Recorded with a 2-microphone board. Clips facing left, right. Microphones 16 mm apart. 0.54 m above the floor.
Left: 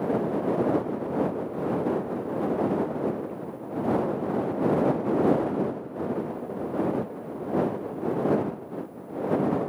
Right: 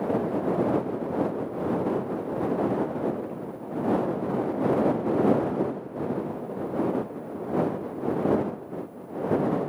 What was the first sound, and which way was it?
Only background noise.